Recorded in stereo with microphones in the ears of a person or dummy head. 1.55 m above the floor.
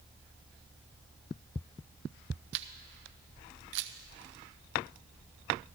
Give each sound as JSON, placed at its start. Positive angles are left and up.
{"t": 2.5, "sound": "a camera shutter", "side_deg": -70, "distance_m": 0.7}